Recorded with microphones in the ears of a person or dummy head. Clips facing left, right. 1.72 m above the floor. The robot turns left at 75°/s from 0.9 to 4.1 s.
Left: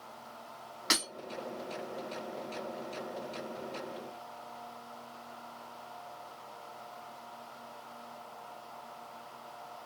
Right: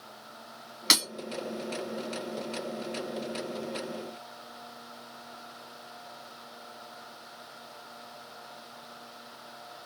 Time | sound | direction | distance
0.9 | breaking glass | 35° right (ahead or behind) | 1.7 m